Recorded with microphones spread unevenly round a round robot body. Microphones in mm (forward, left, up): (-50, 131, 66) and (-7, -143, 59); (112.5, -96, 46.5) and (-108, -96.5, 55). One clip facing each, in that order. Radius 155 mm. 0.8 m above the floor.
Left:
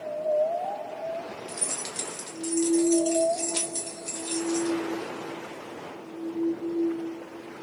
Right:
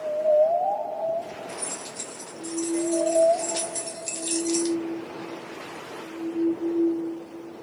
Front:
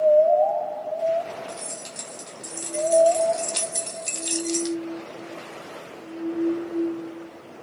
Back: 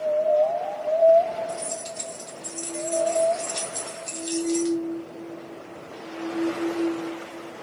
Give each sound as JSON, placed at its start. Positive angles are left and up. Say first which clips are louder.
{"t": 1.5, "sound": "keys jangling", "louder": "right 1 dB, back 4 dB", "azimuth_deg": 60, "distance_m": 1.7}